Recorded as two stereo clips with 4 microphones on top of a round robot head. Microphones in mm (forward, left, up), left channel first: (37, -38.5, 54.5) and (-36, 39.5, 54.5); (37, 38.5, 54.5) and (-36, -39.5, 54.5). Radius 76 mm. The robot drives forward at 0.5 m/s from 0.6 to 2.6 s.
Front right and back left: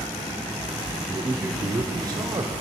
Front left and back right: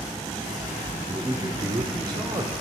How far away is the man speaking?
About 0.8 m.